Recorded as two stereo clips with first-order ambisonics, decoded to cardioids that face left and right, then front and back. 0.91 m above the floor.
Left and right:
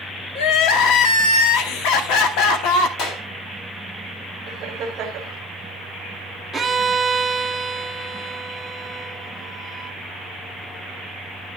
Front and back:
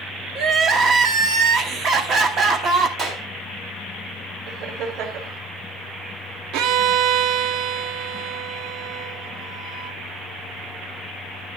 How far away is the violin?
About 0.8 m.